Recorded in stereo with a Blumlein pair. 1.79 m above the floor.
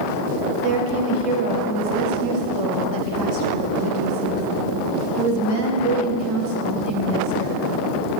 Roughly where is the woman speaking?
Ahead right.